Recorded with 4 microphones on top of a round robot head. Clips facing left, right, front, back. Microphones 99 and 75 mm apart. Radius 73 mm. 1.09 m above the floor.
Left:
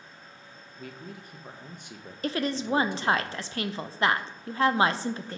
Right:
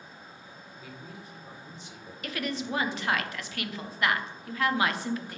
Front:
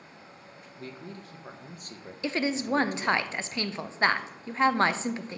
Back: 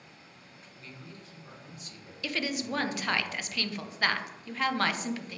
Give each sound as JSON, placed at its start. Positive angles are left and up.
{"t": 0.8, "sound": "a man speaking", "azimuth_deg": 50, "distance_m": 0.9}
{"t": 2.2, "sound": "a woman speaking", "azimuth_deg": 50, "distance_m": 0.5}